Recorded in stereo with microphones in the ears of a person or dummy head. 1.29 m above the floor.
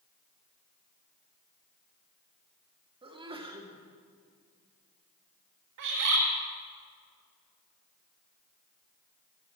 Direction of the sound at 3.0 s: 20° right (ahead or behind).